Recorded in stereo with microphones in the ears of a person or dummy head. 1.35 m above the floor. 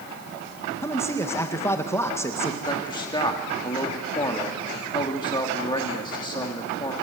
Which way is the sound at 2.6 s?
20° left (ahead or behind).